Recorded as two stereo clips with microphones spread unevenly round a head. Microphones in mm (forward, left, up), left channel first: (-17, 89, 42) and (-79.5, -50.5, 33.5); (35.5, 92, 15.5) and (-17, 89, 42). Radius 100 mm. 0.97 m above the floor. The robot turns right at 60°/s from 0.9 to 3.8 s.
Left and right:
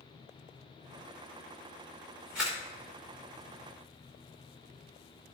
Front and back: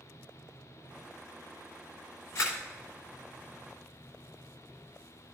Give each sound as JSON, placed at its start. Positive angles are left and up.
{"t": 2.4, "sound": "a camera shutter", "azimuth_deg": -30, "distance_m": 3.0}